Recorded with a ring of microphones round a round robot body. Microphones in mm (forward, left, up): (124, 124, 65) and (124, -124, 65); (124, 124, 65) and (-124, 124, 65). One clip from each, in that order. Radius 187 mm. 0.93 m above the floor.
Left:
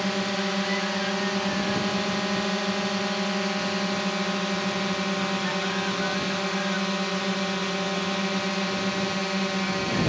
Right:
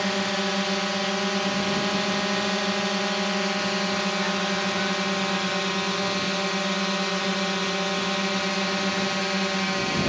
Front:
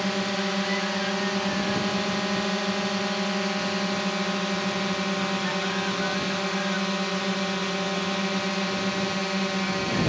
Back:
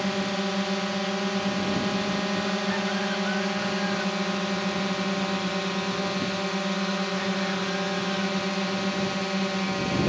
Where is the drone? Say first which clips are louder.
Right 2 dB, front 1 dB; 75° right.